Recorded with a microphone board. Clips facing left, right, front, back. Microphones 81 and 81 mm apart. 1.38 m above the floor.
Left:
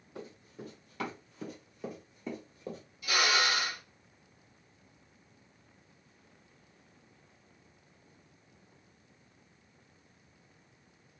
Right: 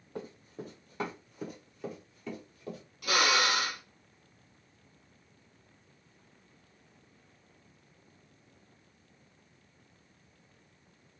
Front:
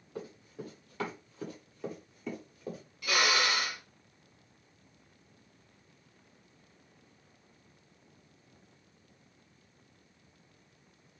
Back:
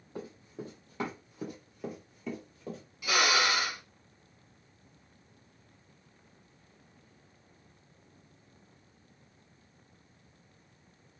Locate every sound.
0.1 s running footsteps: 125° right, 2 m; by 2.8 s 75° left, 1.7 m
3.0 s a drill: 100° right, 1.3 m